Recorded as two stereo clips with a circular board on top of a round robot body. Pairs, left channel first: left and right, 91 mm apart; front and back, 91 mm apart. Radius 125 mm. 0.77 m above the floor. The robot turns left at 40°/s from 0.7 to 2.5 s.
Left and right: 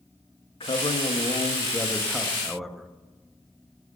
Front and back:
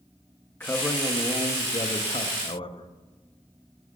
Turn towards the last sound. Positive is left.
turn(degrees=0)